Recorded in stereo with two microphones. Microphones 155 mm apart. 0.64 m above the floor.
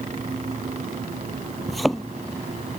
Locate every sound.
1.7 s a thud: centre (ahead or behind)